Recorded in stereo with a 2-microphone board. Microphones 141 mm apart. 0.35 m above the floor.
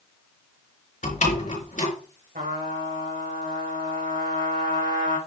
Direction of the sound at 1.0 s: 60° left (ahead or behind).